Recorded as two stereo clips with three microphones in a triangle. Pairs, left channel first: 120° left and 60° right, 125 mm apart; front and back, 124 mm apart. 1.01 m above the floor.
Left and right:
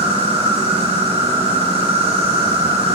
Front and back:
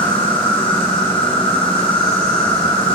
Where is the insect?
40° right, 3 m.